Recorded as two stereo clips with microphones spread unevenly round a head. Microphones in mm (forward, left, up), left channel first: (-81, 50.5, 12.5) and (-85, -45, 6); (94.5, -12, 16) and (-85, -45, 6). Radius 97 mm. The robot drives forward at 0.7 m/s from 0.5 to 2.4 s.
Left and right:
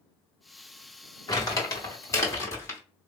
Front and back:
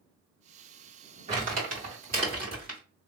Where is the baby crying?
I don't hear a baby crying.